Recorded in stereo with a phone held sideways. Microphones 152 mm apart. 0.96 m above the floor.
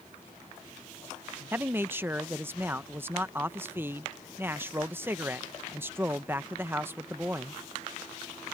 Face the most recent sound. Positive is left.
turn(degrees=-15)  # may be behind; listen again after turning